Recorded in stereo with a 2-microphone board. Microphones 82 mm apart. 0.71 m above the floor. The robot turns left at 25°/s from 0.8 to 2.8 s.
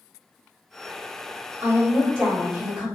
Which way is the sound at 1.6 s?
30° right (ahead or behind).